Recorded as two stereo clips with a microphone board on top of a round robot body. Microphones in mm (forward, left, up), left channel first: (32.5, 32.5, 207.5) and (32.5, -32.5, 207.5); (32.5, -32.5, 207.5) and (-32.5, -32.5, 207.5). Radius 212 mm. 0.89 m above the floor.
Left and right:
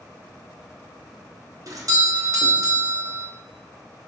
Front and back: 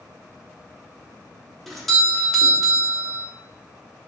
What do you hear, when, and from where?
1.7 s a doorbell: 90° right, 1.2 m